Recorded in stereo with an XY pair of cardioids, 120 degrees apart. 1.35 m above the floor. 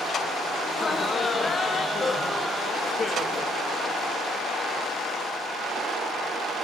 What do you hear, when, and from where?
0.7 s laughter: 30° left, 1.4 m